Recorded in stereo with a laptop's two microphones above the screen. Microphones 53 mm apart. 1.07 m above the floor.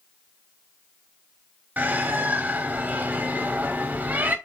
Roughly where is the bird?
Right.